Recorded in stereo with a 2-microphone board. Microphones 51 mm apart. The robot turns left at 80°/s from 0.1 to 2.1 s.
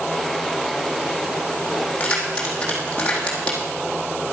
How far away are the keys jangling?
About 3.5 m.